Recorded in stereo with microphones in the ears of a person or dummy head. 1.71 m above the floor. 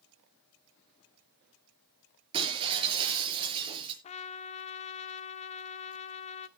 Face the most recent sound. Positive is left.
turn(degrees=40)  # may be behind; listen again after turning